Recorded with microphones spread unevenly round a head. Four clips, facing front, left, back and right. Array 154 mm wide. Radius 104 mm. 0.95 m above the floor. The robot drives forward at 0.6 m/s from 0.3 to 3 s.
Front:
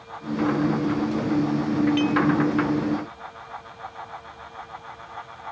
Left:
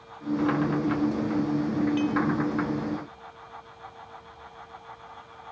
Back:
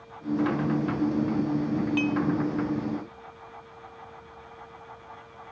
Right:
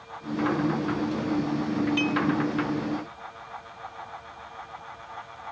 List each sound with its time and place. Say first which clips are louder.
2.0 s dishes clattering: even, front 4 dB; straight behind